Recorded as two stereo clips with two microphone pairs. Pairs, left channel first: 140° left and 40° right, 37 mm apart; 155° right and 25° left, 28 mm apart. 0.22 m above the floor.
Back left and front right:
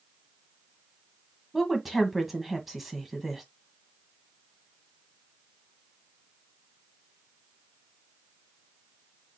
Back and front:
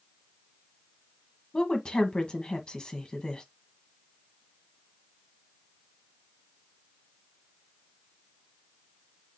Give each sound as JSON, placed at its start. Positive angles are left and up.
{"t": 1.5, "sound": "a woman speaking", "azimuth_deg": -120, "distance_m": 1.2}